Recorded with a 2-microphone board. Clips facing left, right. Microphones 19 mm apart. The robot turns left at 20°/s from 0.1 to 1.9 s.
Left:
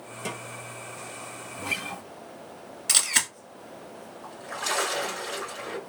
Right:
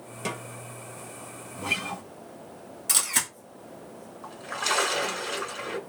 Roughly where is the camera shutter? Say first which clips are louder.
Left 3 dB; left.